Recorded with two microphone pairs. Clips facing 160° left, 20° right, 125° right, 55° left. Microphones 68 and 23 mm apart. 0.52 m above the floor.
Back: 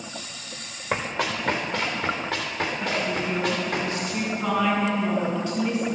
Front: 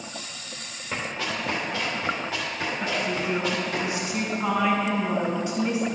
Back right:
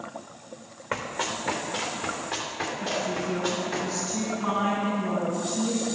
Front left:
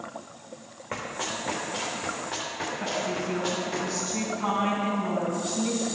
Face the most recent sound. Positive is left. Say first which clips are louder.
# front 1 dB, even
turn(degrees=60)